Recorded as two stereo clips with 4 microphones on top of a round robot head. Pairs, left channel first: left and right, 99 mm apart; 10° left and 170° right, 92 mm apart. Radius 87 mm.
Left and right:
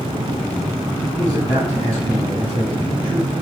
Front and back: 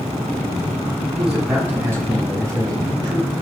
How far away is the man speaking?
About 5.5 m.